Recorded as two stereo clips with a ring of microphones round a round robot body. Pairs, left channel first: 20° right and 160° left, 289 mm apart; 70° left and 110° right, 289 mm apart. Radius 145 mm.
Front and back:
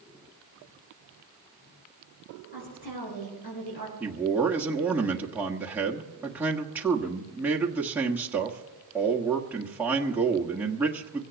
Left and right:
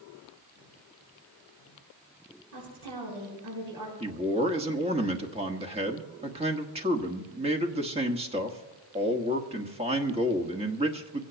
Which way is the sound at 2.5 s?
80° right.